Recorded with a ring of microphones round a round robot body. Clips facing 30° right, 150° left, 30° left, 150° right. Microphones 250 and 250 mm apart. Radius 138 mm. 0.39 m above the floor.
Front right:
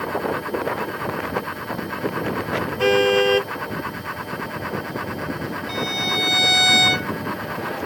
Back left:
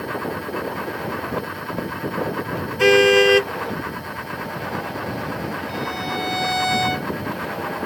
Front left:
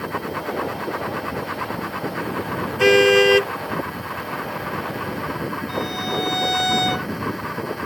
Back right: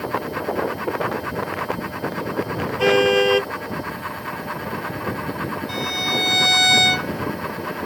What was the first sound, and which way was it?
A car horn, 90° left.